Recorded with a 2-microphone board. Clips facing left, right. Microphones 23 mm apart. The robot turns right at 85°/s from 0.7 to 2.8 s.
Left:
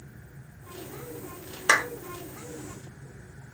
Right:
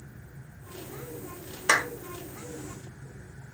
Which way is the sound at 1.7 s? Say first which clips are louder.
Left 2 dB; 10° left (ahead or behind).